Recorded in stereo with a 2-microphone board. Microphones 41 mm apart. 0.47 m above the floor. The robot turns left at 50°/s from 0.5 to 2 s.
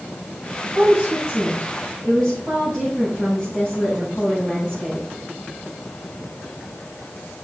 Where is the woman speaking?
140° right, 4 m; by 5.1 s 155° left, 4 m.